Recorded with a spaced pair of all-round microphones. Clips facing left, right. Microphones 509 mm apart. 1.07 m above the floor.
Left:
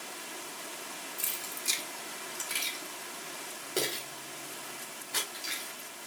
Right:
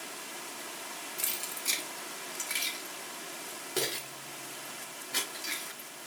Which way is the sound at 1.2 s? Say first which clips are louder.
Right 1 dB; 85° right.